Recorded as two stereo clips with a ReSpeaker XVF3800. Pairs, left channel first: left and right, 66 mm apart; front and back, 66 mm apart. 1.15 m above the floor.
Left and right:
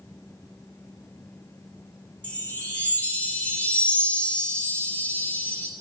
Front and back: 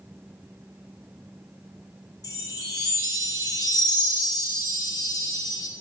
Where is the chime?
20° left, 3.5 m.